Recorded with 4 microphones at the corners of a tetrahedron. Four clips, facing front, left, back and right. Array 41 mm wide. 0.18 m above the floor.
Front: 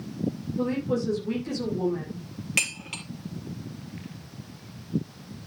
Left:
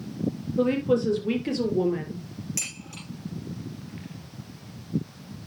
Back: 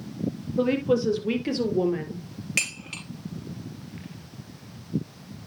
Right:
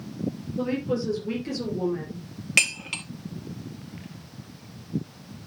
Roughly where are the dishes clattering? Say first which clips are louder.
Right 17 dB, front 1 dB; right.